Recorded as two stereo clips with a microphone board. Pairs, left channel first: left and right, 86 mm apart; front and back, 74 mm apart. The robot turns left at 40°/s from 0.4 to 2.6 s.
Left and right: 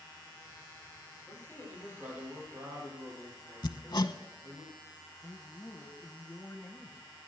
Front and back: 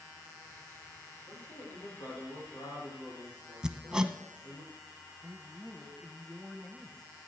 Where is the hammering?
105° left, 0.8 m.